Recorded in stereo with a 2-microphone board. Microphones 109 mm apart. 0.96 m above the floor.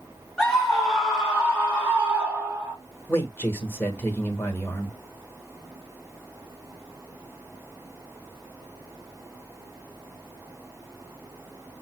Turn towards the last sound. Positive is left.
turn(degrees=20)  # may be behind; listen again after turning